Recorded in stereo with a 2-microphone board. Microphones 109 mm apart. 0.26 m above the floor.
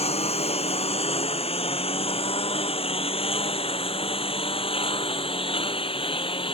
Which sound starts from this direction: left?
A lawn mower, at 0.0 s.